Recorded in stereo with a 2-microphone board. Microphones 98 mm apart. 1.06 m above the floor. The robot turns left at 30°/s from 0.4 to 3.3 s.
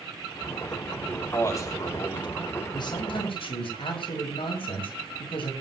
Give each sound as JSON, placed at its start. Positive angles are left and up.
{"t": 1.1, "sound": "a man speaking", "azimuth_deg": 160, "distance_m": 3.0}
{"t": 2.7, "sound": "a man speaking", "side_deg": 45, "distance_m": 7.0}